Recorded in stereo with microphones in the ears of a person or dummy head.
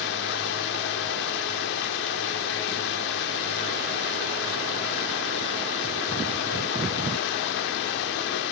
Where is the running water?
60° left (ahead or behind), 1.9 m.